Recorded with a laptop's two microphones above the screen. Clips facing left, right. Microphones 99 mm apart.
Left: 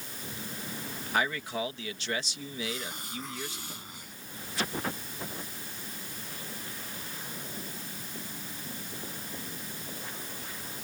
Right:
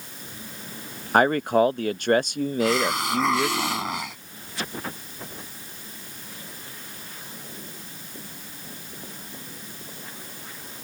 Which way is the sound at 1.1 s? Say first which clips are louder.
Right 12 dB; 50° right (ahead or behind).